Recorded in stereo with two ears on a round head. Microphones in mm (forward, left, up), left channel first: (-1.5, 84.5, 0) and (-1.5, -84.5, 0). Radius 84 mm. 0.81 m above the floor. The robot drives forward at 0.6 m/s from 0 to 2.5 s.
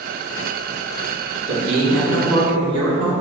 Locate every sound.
1.5 s a man speaking: 75° right (ahead or behind), 1.9 m; by 3.1 s 60° right (ahead or behind), 2 m